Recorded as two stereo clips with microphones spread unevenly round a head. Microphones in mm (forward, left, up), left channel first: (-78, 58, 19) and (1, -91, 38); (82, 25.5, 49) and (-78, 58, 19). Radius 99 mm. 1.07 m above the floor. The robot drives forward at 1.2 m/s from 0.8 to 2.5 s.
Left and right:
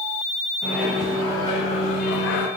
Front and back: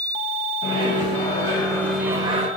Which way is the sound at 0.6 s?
30° left.